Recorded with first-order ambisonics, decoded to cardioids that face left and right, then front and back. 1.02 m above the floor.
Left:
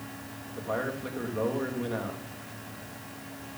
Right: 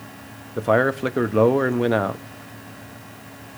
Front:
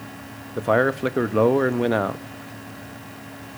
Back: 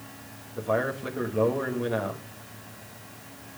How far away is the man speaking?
About 1.2 m.